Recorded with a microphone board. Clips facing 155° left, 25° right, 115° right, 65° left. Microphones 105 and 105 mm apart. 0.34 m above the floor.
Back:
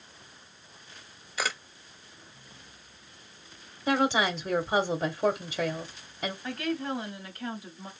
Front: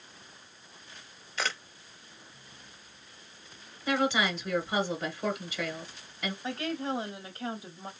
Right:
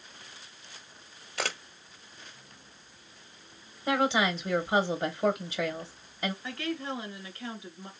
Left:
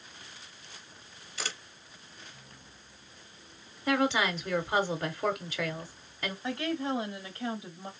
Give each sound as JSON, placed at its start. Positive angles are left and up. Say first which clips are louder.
{"t": 1.4, "sound": "a camera shutter", "louder": "back 1 dB, right 6 dB", "azimuth_deg": -120, "distance_m": 0.6}
{"t": 3.9, "sound": "a woman speaking", "louder": "back 2 dB, right 1 dB", "azimuth_deg": -175, "distance_m": 0.9}
{"t": 6.4, "sound": "a woman speaking", "louder": "back 1 dB, left 3 dB", "azimuth_deg": 20, "distance_m": 1.7}